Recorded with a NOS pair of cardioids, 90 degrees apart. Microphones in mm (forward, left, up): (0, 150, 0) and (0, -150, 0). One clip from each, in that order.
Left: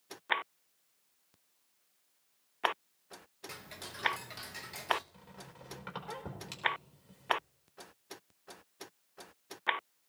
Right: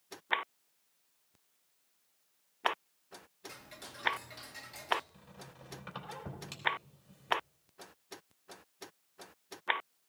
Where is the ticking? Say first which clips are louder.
Left 4 dB; 30° left, 0.9 m.